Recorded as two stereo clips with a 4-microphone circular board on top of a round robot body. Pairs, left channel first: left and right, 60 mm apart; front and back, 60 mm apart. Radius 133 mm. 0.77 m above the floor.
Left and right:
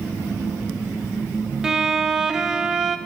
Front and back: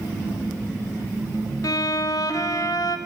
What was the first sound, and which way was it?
A violin, 10° right.